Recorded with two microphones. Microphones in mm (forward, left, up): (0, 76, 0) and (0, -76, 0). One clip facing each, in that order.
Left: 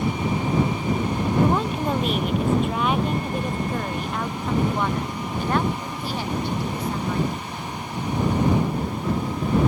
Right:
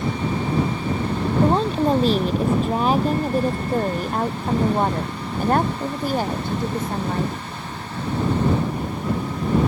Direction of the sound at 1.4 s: 30° right (ahead or behind).